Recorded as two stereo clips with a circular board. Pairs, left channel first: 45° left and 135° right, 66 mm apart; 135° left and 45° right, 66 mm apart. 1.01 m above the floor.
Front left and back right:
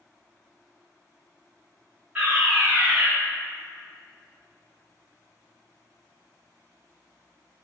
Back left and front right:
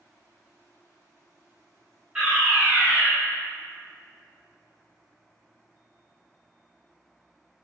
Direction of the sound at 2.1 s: 100° right.